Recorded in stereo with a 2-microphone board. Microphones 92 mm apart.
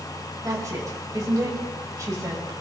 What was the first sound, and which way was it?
A woman speaking, 40° right (ahead or behind).